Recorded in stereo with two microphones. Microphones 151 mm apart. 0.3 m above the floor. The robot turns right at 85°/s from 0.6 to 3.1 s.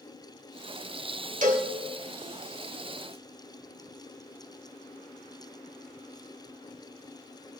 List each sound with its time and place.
1.4 s a cowbell: 60° right (ahead or behind), 1.7 m